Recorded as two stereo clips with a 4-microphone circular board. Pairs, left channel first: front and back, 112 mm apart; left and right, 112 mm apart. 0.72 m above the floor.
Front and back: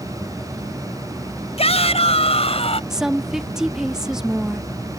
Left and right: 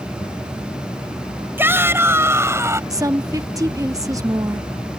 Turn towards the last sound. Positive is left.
turn(degrees=-100)